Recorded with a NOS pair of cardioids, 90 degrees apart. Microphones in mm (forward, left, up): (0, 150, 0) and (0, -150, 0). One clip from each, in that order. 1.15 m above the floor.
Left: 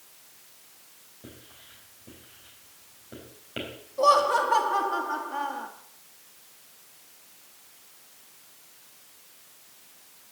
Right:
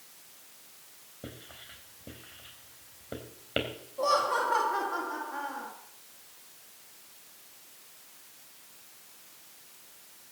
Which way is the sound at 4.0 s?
30° left.